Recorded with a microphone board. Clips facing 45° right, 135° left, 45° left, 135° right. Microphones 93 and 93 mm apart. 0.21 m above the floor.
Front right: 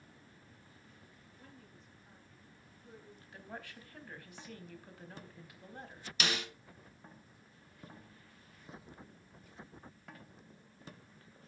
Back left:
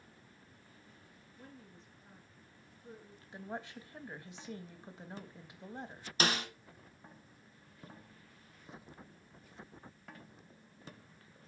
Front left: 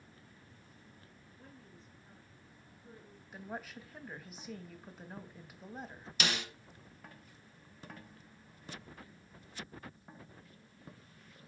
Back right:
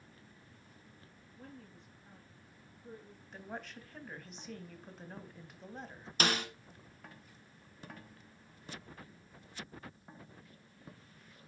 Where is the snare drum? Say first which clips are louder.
Back left 4 dB, back right 4 dB; 175° right, 1.5 m.